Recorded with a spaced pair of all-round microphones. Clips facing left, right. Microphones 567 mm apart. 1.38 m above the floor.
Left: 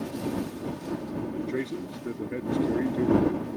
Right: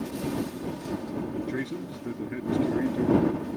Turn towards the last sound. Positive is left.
turn(degrees=-10)  # may be behind; listen again after turning